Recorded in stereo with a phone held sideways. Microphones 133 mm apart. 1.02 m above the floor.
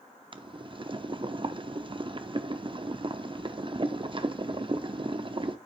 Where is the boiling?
40° right (ahead or behind), 0.6 m.